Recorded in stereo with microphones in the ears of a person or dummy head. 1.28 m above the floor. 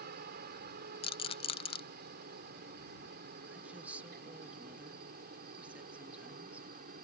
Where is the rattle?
30° left (ahead or behind).